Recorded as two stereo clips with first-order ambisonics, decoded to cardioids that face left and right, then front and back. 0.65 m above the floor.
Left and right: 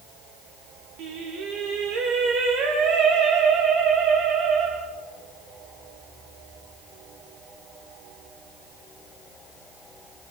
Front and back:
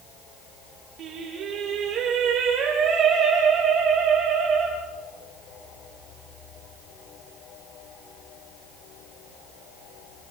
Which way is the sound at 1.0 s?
125° right.